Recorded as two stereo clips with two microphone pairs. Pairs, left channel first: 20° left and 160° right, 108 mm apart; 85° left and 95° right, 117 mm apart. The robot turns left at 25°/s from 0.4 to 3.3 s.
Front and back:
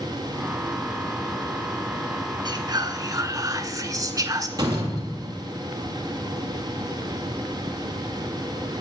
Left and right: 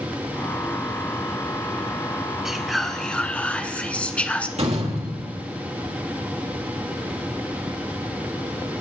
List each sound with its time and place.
2.5 s whispering: 175° right, 1.5 m; by 4.5 s 160° left, 1.5 m
4.6 s a door slam: 110° right, 3 m